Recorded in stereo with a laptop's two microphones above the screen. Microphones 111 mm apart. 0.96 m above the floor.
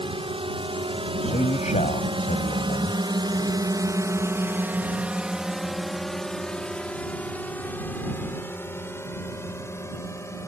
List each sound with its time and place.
0.0 s a drone: 50° right (ahead or behind); by 10.5 s 25° left (ahead or behind)
1.2 s a man speaking: 85° left